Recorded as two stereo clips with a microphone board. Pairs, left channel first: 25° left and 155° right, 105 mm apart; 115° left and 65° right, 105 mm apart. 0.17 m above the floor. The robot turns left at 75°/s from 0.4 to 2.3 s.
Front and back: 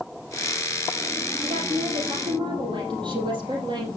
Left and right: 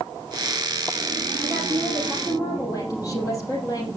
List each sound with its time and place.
1.4 s a woman speaking: 130° right, 4 m; by 3.9 s 165° left, 4 m